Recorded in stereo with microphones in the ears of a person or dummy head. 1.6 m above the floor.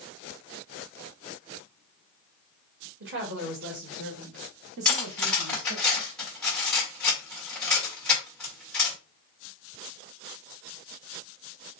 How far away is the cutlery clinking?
About 1.6 m.